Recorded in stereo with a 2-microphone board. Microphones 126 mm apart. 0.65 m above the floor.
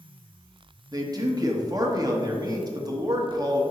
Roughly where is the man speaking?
Right.